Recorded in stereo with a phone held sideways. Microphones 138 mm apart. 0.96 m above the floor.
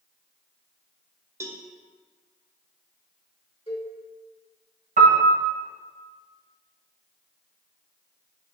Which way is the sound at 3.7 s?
45° left (ahead or behind).